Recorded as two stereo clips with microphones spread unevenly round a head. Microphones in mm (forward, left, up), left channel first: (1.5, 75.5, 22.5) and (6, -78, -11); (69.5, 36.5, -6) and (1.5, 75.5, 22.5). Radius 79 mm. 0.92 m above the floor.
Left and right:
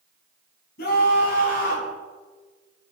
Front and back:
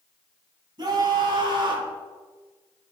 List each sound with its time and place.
0.8 s a scream: 120° left, 8.5 m; by 1.9 s 130° left, 8.5 m